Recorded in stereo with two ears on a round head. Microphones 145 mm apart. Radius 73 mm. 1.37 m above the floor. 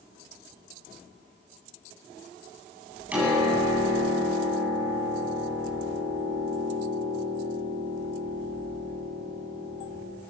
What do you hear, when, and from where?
3.1 s a piano: 10° right (ahead or behind), 9.5 m